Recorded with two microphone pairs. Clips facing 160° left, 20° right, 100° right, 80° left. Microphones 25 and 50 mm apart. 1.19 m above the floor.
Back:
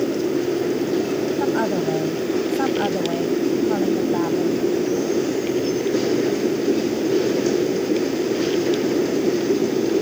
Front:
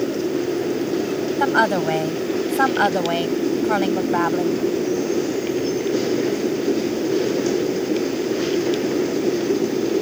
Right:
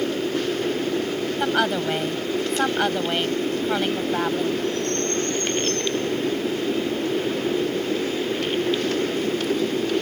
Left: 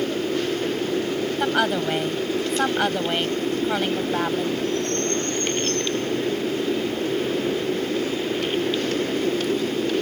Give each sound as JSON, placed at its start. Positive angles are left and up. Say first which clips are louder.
{"t": 1.4, "sound": "a woman speaking", "louder": "front 6 dB, even", "azimuth_deg": -10}